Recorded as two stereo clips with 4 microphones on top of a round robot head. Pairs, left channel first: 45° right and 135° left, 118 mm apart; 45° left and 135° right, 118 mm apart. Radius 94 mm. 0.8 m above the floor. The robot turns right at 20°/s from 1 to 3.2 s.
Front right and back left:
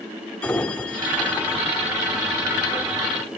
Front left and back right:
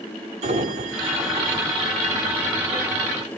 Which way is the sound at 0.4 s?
125° right.